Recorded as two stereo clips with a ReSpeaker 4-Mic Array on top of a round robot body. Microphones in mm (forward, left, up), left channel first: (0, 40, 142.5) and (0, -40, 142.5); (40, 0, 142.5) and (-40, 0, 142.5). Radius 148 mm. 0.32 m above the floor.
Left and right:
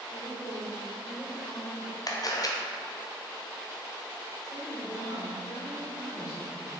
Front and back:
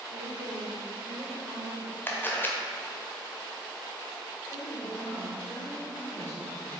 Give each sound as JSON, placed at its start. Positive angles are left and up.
{"t": 0.1, "sound": "a woman speaking", "azimuth_deg": 160, "distance_m": 2.0}
{"t": 2.1, "sound": "a camera shutter", "azimuth_deg": 60, "distance_m": 1.3}
{"t": 4.4, "sound": "a woman speaking", "azimuth_deg": 65, "distance_m": 2.5}